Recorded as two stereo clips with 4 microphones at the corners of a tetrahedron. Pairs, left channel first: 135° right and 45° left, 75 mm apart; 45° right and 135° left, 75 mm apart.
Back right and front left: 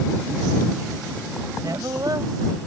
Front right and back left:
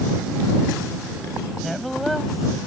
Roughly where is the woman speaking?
Ahead left.